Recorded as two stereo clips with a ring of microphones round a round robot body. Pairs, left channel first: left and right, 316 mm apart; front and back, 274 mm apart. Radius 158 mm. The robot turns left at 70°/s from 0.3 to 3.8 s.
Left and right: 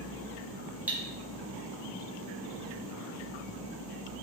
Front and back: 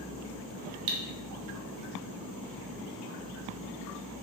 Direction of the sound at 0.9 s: 175° right.